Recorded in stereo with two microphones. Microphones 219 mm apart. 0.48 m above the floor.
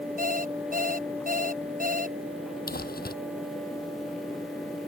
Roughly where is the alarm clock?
Right.